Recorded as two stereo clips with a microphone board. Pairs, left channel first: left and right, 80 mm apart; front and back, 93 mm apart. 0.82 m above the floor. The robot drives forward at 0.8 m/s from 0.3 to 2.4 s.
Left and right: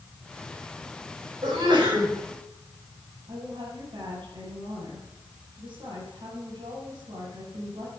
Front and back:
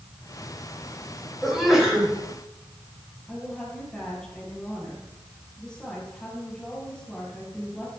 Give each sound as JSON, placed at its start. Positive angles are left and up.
{"t": 1.4, "sound": "a sneeze", "azimuth_deg": -95, "distance_m": 4.5}
{"t": 3.3, "sound": "a woman speaking", "azimuth_deg": -80, "distance_m": 6.0}